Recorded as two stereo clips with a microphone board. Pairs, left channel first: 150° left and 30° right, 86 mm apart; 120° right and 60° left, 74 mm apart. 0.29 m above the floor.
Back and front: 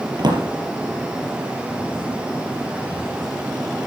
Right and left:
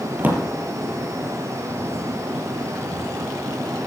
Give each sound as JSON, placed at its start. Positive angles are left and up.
{"t": 0.2, "sound": "a drawer", "azimuth_deg": -5, "distance_m": 3.5}